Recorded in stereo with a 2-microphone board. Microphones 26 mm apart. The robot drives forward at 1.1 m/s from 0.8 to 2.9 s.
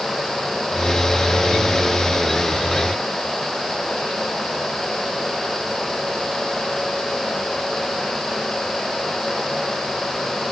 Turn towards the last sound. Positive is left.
No sound to turn to.